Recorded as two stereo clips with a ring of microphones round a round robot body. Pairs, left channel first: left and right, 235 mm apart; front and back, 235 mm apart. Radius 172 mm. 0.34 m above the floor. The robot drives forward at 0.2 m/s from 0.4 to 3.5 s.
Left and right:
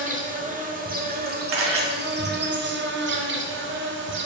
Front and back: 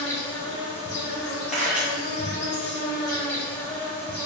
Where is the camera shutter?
90° right, 1.2 m; by 1.8 s 95° right, 1.2 m.